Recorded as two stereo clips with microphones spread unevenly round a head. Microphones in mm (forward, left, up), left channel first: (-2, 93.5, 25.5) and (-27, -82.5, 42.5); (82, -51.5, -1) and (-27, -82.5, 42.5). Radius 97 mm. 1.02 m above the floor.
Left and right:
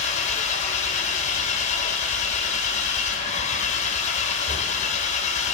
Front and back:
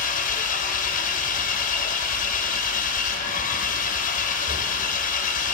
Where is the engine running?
25° left, 1.9 m.